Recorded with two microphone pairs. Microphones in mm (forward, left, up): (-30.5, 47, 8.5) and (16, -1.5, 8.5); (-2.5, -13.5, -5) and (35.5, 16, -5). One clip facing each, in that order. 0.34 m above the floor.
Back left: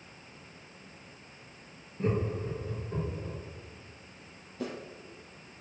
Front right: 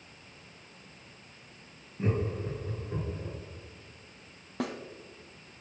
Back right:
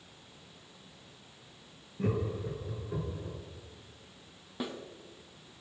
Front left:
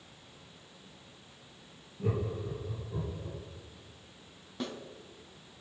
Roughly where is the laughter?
Behind right.